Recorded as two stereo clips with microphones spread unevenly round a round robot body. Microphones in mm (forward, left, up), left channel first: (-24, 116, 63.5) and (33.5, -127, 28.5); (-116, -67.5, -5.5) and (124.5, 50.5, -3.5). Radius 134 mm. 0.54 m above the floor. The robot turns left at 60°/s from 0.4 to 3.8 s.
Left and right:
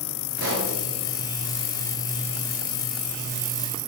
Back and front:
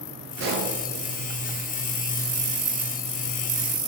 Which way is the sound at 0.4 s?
25° right.